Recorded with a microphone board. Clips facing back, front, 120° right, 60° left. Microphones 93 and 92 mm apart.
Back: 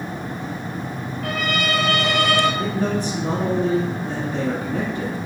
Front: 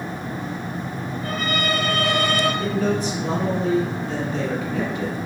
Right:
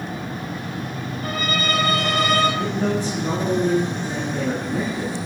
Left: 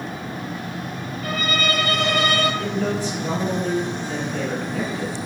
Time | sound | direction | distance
1.2 | a violin | 170° right | 1.4 m
2.6 | a man speaking | 170° right | 1.8 m